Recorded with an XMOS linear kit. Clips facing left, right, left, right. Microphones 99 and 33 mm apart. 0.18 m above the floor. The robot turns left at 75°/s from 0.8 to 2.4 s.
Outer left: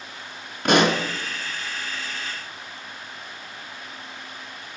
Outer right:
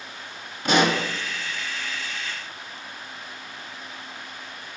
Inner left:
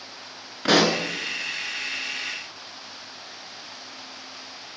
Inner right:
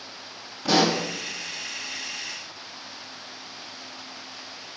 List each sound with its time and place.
0.7 s a pop: 60° left (ahead or behind), 0.7 m; by 1.0 s 45° left (ahead or behind), 0.7 m